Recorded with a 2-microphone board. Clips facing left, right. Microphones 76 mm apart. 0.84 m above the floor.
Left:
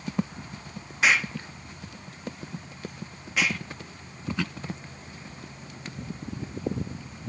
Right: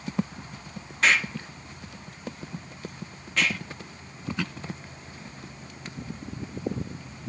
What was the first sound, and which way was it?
An explosion, 5° left (ahead or behind).